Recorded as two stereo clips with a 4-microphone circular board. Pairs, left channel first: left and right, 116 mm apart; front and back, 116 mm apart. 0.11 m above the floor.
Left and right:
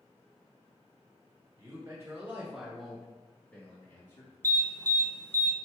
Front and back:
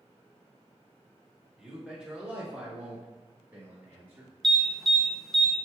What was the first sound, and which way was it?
A man speaking, 95° right.